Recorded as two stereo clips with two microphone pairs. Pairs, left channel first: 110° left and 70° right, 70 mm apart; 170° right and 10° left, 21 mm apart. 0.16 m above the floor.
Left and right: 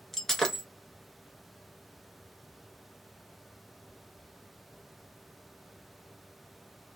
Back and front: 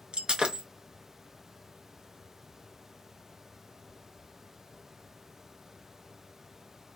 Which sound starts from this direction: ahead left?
Breaking glass, at 0.1 s.